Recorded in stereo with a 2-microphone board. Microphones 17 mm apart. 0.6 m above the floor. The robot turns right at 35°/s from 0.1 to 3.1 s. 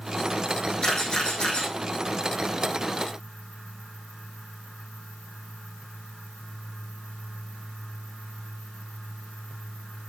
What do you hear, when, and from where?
0.8 s a camera shutter: 40° left (ahead or behind), 5.5 m; by 1.7 s 70° left (ahead or behind), 5.5 m